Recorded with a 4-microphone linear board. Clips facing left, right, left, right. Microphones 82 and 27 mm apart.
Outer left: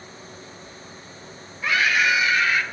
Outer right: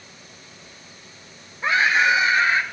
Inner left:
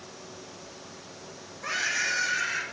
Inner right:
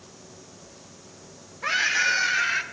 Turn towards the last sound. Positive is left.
turn(degrees=-30)  # may be behind; listen again after turning